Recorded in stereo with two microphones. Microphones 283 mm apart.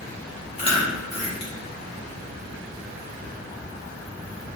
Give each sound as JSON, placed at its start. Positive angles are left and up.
{"t": 0.6, "sound": "chewing", "side_deg": 20, "distance_m": 1.1}